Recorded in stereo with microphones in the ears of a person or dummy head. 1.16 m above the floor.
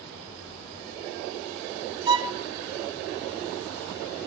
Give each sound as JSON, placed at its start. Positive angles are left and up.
{"t": 2.1, "sound": "a violin", "side_deg": -25, "distance_m": 0.6}